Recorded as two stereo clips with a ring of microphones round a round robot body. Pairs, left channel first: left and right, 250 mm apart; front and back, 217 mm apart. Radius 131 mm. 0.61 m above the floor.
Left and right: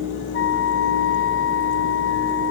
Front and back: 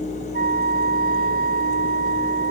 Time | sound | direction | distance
0.3 | a flute | 135° left | ?